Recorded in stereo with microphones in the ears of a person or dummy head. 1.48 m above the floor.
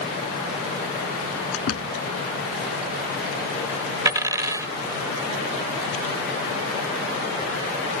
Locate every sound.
1.5 s a door slam: 85° left
4.0 s a dropped coin: 15° right (ahead or behind)